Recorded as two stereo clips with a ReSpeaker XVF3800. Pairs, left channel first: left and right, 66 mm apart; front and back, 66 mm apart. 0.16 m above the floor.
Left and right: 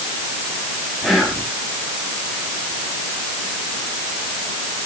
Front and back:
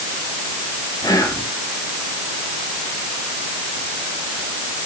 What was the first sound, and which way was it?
Whispering, 5° right.